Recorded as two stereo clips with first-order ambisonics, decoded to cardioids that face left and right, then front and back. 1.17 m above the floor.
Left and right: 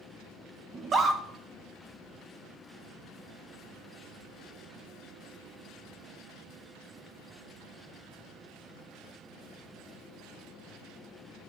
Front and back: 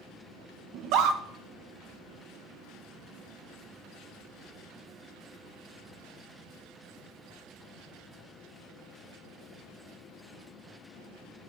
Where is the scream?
155° right, 1.2 m.